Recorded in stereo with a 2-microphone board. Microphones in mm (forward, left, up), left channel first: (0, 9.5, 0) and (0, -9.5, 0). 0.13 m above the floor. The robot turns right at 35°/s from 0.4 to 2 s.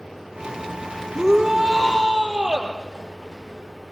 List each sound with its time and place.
1.1 s a shout: 155° right, 3.5 m; by 2.7 s 125° right, 3.5 m